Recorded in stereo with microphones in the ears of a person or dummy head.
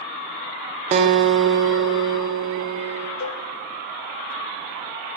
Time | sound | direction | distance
0.9 | a guitar | 40° right (ahead or behind) | 0.5 m
3.2 | a cowbell | 70° left (ahead or behind) | 0.7 m